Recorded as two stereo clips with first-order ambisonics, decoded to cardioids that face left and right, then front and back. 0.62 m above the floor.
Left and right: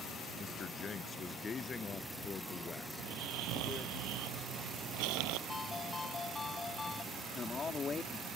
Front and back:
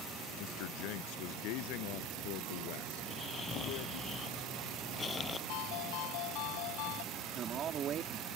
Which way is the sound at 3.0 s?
70° right.